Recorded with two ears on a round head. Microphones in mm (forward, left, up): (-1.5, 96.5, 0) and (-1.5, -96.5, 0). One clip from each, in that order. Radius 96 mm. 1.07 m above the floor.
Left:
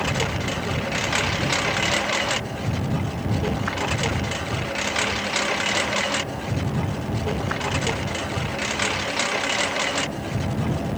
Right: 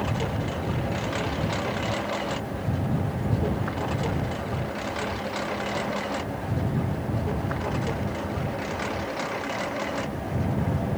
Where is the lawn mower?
55° left (ahead or behind); by 11.0 s 65° left (ahead or behind).